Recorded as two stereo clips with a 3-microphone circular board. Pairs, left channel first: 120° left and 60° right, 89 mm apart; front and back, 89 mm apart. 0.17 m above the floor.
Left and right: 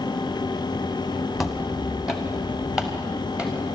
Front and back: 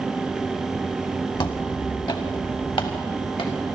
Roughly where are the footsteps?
Ahead left.